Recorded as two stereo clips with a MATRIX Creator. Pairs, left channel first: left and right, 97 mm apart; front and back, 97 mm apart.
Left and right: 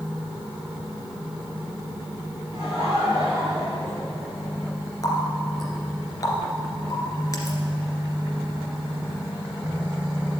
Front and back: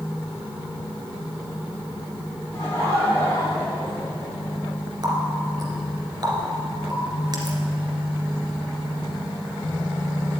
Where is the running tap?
140° left, 2 m.